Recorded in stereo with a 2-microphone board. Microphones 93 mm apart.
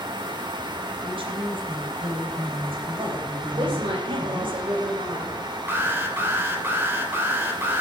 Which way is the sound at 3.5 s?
60° right (ahead or behind).